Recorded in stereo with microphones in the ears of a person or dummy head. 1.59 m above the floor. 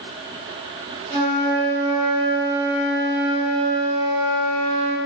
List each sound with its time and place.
1.1 s a flute: 40° right (ahead or behind), 3 m